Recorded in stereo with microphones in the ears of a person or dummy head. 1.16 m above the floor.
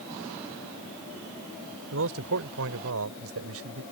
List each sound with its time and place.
1.9 s a man speaking: 60° right (ahead or behind); by 3.8 s 75° right (ahead or behind)